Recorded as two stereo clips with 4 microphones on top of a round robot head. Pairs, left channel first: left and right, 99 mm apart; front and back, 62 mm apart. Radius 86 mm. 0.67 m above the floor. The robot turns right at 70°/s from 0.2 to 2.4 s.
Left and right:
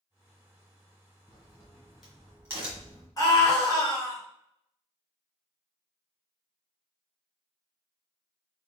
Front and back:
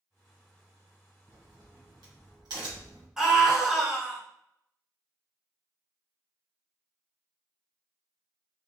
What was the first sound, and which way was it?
A crack, 130° left.